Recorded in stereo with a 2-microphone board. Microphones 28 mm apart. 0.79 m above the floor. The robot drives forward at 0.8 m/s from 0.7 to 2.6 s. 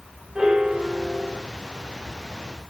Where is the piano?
30° right (ahead or behind), 3.5 m; by 1.4 s 35° right (ahead or behind), 3 m.